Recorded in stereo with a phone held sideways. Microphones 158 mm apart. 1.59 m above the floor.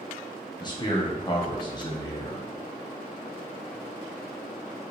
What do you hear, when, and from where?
0.6 s a man speaking: 30° left (ahead or behind), 1.2 m